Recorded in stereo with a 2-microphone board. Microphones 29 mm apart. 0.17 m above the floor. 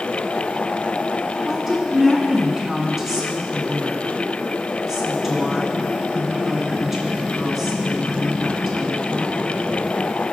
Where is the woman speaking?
5° right (ahead or behind), 1.8 m.